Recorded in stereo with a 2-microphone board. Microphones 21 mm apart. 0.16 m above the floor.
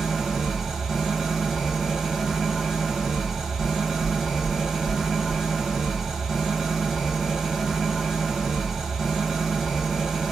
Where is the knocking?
15° left (ahead or behind), 1.7 m.